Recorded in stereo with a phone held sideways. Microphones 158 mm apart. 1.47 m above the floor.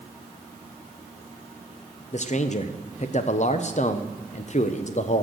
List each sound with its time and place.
2.1 s a man speaking: 50° left (ahead or behind), 0.6 m